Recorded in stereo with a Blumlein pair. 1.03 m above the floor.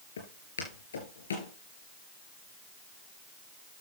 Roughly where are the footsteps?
Left.